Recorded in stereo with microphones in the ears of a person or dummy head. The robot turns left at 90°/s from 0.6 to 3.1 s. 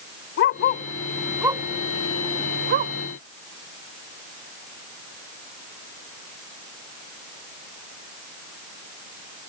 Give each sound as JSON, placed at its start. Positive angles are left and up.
{"t": 0.4, "sound": "a dog barking", "side_deg": 55}